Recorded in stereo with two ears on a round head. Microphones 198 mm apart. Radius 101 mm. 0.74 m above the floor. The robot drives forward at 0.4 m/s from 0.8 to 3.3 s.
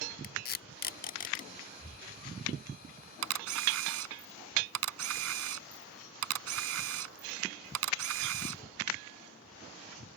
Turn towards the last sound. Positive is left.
turn(degrees=-65)  # may be behind; listen again after turning